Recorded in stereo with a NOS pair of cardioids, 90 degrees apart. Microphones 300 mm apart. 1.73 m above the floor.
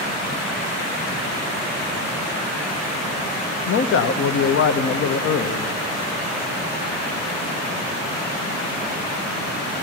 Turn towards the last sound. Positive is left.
turn(degrees=50)